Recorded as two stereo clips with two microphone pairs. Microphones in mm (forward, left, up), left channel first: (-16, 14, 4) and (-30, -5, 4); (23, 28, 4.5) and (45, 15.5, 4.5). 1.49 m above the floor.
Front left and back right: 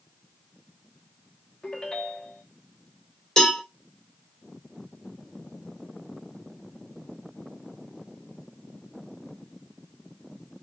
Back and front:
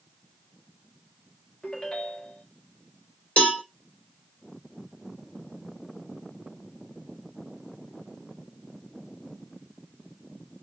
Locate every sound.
1.6 s a ringtone: 105° left, 1.2 m
3.4 s a cowbell: 120° left, 1.5 m